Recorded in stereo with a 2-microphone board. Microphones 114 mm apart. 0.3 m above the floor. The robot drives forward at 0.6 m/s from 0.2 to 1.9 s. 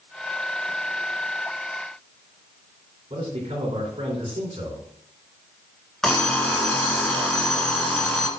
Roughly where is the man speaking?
Right.